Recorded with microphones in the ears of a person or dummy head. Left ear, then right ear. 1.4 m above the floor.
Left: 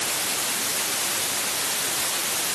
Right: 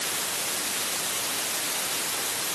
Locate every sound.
Only background noise.